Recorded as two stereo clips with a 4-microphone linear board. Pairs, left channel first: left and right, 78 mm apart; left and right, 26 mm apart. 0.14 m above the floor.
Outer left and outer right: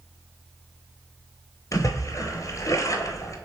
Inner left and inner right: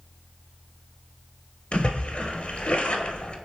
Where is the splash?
45° left (ahead or behind), 0.7 m.